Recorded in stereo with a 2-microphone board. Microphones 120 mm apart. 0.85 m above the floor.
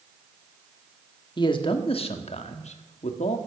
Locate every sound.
1.4 s a man speaking: 40° left (ahead or behind), 1.6 m; by 3.4 s 75° left (ahead or behind), 1.5 m